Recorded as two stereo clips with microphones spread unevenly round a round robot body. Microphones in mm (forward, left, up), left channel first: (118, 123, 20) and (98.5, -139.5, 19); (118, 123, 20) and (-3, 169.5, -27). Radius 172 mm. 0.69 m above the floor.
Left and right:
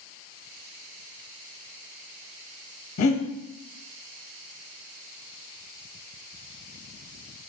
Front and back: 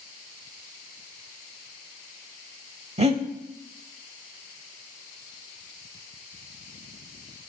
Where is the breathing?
110° left, 0.6 m.